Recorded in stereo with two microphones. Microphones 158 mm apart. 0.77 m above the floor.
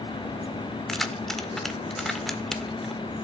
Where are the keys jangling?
Centre (ahead or behind), 1.7 m.